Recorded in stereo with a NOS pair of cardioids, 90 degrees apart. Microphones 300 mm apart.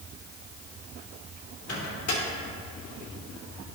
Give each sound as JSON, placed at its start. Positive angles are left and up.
{"t": 1.7, "sound": "a microwave", "azimuth_deg": 55, "distance_m": 2.5}